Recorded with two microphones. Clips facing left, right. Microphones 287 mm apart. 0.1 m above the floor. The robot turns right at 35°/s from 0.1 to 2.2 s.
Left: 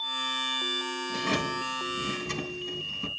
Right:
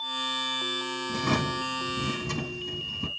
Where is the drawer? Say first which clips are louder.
Right 3 dB; 105° right, 1.4 m; by 3.1 s 65° right, 1.4 m.